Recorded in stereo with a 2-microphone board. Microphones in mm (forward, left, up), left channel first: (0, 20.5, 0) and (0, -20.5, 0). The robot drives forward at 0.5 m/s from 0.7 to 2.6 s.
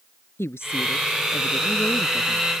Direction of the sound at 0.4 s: 80° left.